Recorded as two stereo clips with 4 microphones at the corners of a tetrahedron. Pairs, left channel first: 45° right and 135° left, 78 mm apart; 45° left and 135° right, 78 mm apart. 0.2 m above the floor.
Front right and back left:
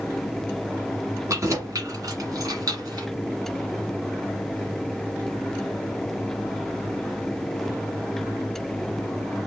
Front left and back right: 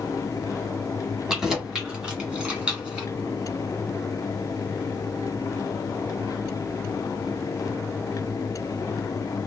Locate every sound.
1.3 s keys jangling: 140° left, 1.2 m; by 3.1 s 155° left, 1.9 m